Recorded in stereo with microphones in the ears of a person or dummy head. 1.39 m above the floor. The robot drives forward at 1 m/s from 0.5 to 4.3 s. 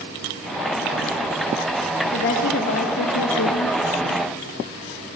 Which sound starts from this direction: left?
A woman speaking, at 2.1 s.